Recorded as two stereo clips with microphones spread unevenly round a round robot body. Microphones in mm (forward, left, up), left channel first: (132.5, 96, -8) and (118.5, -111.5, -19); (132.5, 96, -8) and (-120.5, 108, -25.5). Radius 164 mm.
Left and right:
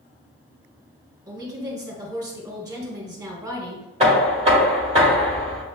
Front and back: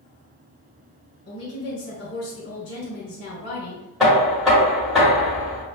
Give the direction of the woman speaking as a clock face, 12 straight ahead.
1 o'clock.